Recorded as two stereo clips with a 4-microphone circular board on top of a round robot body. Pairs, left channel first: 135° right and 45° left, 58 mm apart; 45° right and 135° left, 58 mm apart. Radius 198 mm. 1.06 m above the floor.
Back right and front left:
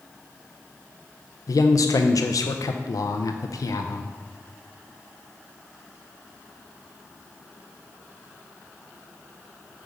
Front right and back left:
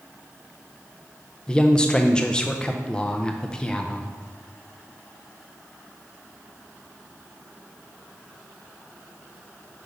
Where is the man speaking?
120° right, 0.5 m.